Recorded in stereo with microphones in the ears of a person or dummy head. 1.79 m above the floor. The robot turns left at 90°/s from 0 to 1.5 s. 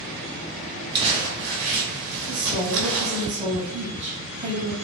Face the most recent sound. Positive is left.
turn(degrees=-35)  # may be behind; listen again after turning